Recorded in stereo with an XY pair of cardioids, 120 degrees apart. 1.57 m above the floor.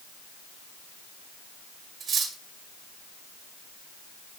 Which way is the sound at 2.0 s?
55° right.